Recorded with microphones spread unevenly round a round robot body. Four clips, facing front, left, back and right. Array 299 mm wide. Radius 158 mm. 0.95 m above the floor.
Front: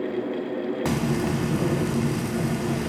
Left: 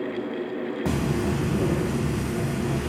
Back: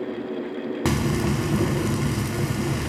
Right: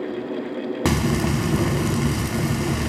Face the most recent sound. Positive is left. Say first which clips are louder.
# right 4 dB, back 3 dB
turn(degrees=-115)